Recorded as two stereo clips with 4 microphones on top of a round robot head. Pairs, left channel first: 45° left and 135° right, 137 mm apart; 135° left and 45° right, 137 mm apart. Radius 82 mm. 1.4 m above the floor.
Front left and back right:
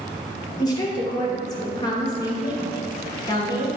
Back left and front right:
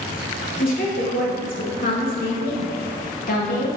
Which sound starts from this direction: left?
A woman speaking, at 0.6 s.